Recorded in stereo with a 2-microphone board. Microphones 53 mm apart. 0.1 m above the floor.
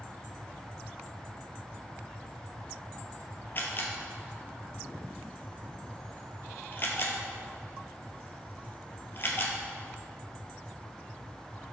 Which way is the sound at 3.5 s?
45° left (ahead or behind).